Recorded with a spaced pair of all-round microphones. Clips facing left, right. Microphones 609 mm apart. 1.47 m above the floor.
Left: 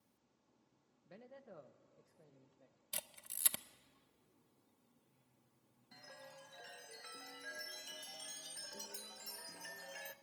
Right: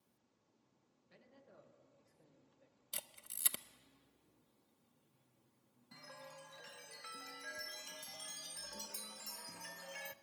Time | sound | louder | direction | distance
1.1 | a man speaking | left 8 dB | 70° left (ahead or behind) | 1.2 m
2.9 | a camera shutter | left 2 dB | 20° left (ahead or behind) | 0.6 m
5.9 | a chime | right 2 dB | 35° right (ahead or behind) | 0.7 m